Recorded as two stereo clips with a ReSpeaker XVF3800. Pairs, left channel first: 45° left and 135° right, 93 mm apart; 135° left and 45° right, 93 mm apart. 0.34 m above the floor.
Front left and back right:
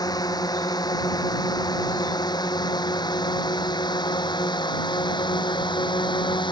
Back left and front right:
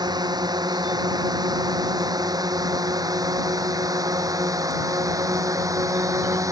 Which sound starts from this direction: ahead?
A drone, at 0.0 s.